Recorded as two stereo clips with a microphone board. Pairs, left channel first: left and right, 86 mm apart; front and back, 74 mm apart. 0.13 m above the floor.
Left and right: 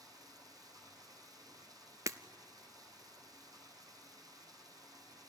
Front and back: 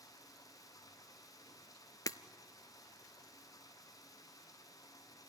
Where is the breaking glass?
40° right, 0.7 m.